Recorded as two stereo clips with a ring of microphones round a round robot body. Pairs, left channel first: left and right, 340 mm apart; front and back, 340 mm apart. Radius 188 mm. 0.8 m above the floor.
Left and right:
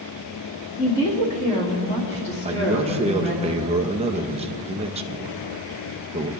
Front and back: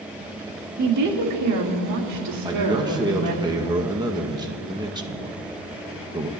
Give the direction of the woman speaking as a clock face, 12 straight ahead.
6 o'clock.